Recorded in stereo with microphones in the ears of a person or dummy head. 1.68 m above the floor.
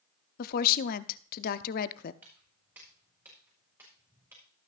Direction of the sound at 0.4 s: 50° left (ahead or behind).